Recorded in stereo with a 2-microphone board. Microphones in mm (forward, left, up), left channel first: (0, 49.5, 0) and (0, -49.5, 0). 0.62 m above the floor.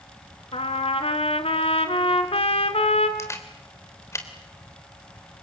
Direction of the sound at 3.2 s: 30° left (ahead or behind).